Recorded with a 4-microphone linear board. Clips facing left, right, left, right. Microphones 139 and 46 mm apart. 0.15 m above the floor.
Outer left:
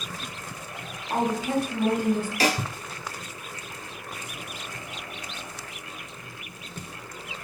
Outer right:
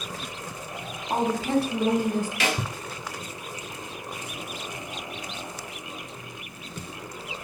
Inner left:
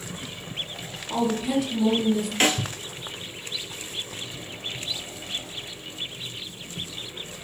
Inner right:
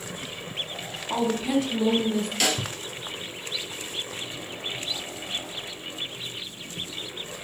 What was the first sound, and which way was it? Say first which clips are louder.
A woman speaking: outer right 1 dB, even; 25° right (ahead or behind).